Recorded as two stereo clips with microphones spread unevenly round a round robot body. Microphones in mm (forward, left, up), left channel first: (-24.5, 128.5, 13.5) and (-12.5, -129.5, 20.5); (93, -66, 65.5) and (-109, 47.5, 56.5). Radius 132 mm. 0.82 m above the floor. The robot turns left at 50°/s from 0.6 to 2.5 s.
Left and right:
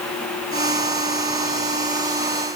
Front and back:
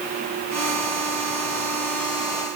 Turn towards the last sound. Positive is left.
No sound to turn to.